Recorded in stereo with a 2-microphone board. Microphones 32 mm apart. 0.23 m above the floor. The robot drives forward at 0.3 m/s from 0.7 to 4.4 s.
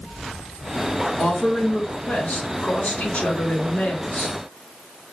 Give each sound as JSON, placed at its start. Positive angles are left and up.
{"t": 1.2, "sound": "a woman speaking", "side_deg": 50, "distance_m": 2.5}